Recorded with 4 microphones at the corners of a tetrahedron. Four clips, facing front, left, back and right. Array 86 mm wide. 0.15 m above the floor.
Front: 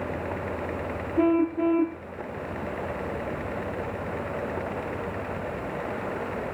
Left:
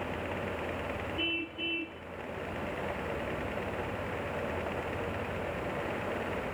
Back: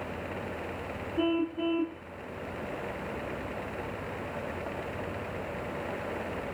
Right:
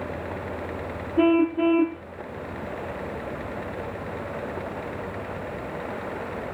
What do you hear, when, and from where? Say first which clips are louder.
1.2 s a car horn: right 17 dB, front 7 dB; 70° right